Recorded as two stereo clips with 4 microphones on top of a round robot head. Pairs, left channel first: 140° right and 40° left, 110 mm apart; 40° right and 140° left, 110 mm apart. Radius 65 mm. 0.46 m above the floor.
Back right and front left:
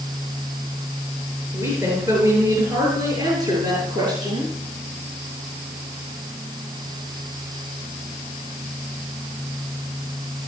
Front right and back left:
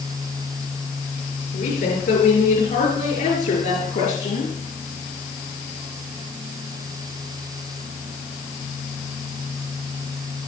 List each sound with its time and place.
1.5 s a woman speaking: 30° right, 7.5 m; by 4.5 s 15° right, 8 m